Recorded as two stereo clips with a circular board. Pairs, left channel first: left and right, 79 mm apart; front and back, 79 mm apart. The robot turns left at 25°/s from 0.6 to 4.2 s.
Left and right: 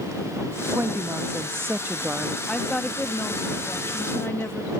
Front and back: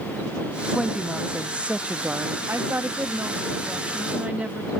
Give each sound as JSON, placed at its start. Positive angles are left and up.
{"t": 0.7, "sound": "a woman speaking", "azimuth_deg": -90}
{"t": 2.5, "sound": "a woman speaking", "azimuth_deg": 165}